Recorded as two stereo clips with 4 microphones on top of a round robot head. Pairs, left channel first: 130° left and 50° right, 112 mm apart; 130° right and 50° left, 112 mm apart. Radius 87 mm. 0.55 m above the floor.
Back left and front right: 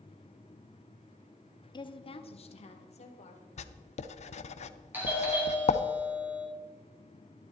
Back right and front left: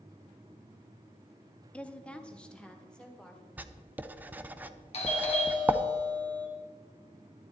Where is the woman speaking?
155° left, 0.9 m; by 3.5 s 145° left, 2.5 m.